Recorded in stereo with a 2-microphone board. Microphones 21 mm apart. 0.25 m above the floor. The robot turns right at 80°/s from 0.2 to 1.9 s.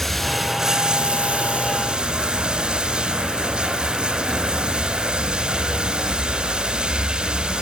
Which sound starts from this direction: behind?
Running water, at 0.0 s.